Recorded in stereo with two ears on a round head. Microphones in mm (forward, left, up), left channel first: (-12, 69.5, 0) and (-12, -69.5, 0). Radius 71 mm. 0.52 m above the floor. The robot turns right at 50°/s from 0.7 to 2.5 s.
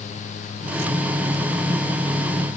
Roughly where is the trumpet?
I don't hear a trumpet.